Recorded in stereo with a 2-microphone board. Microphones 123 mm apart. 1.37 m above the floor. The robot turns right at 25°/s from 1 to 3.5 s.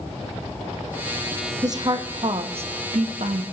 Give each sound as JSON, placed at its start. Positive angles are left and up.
{"t": 1.6, "sound": "a woman speaking", "side_deg": -30, "distance_m": 0.7}